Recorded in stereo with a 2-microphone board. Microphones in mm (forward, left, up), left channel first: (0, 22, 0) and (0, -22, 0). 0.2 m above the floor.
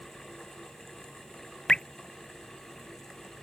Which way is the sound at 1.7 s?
15° left (ahead or behind).